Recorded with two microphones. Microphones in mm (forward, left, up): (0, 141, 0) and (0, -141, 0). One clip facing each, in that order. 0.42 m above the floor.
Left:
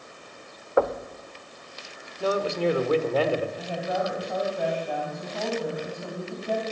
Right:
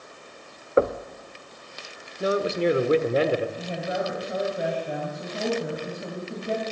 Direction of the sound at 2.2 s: 20° right (ahead or behind).